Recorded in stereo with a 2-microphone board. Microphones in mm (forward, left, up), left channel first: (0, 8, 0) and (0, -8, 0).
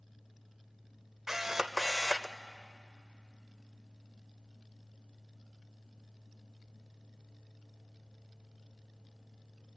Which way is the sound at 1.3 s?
25° right (ahead or behind).